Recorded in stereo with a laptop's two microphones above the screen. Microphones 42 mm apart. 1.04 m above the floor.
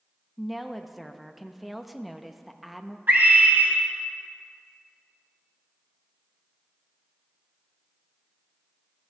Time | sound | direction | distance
0.4 | a woman speaking | 5° right (ahead or behind) | 0.7 m
3.1 | a scream | 50° right (ahead or behind) | 2.0 m